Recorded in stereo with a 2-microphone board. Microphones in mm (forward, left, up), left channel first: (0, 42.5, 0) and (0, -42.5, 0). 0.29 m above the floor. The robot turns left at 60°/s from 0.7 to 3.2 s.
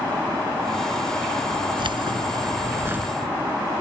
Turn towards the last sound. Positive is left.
turn(degrees=-170)